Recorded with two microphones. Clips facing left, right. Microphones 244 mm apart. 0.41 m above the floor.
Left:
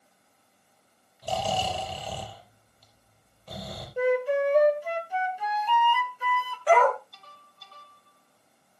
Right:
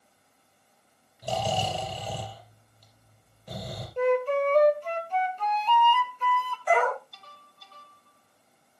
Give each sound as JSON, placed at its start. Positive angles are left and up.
{"t": 1.2, "sound": "snoring", "side_deg": -15, "distance_m": 5.5}
{"t": 4.0, "sound": "a flute", "side_deg": 10, "distance_m": 1.5}
{"t": 6.7, "sound": "a dog barking", "side_deg": 85, "distance_m": 4.0}